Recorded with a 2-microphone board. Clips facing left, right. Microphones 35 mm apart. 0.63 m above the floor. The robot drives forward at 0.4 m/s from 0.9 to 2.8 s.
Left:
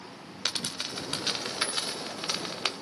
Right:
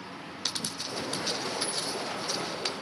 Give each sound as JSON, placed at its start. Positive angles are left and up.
{"t": 0.5, "sound": "a dropped coin", "side_deg": 50, "distance_m": 1.1}